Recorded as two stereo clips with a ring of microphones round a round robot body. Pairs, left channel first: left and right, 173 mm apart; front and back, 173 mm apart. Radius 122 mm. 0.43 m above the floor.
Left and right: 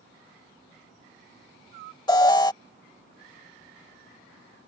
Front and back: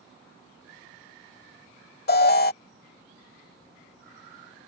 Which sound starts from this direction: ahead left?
An alarm, at 2.1 s.